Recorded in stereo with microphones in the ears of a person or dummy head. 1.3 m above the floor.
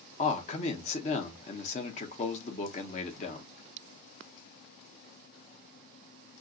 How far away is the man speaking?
About 0.9 m.